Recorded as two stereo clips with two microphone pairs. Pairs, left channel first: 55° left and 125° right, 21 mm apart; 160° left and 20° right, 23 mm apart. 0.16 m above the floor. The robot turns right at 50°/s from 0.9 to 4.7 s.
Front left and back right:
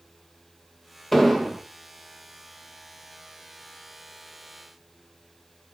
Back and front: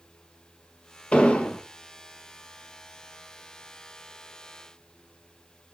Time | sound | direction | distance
1.1 | an explosion | 130° left | 0.5 m